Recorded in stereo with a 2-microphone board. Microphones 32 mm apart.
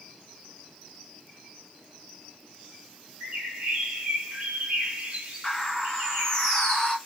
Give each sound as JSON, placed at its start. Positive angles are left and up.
{"t": 3.2, "sound": "a bird", "side_deg": -50, "distance_m": 1.7}
{"t": 5.4, "sound": "a bird", "side_deg": 15, "distance_m": 1.7}